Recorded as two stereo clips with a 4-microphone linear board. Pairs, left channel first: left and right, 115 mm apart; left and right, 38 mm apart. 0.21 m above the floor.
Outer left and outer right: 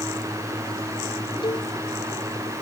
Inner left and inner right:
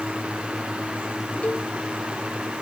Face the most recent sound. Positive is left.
turn(degrees=40)  # may be behind; listen again after turning